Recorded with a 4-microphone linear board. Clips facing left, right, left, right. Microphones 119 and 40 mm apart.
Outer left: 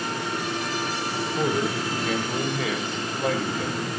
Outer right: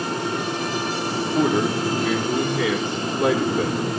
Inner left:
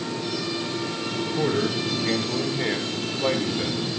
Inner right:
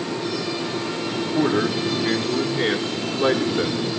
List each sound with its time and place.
1.2 s a man speaking: 75° right (ahead or behind), 6.5 m; by 3.8 s 80° right, 5 m